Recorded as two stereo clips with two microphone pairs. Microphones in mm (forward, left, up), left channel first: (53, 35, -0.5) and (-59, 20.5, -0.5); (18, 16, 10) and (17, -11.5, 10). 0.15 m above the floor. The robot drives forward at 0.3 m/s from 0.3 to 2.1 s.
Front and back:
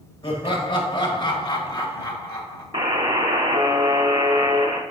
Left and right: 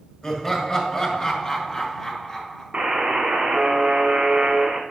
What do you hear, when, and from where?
0.2 s laughter: 35° left, 2 m; by 2.6 s 45° left, 1.9 m
2.7 s a buzzer: 140° right, 1.5 m